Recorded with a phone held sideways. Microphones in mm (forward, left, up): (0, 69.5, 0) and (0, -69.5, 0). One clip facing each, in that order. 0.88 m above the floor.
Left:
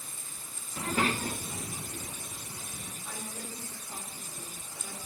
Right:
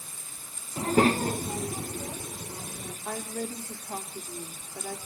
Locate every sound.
0.8 s a child speaking: 30° right (ahead or behind), 0.5 m; by 3.0 s 65° right (ahead or behind), 2 m
3.0 s a woman speaking: 65° right (ahead or behind), 3 m